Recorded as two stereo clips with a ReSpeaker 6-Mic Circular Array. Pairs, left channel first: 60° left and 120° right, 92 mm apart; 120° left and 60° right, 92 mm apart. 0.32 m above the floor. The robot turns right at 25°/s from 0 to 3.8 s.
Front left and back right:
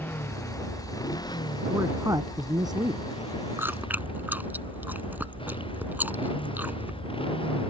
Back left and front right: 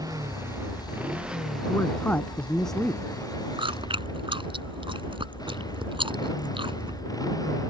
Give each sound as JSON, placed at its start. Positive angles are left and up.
{"t": 0.0, "sound": "a motorcycle", "azimuth_deg": -10}
{"t": 1.7, "sound": "a man speaking", "azimuth_deg": 180}
{"t": 3.6, "sound": "chewing", "azimuth_deg": -55}